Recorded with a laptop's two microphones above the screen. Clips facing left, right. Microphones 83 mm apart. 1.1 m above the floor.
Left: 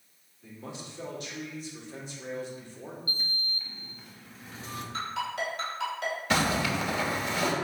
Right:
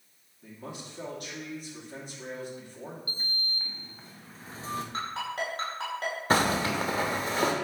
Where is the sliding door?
35° right (ahead or behind), 0.7 m.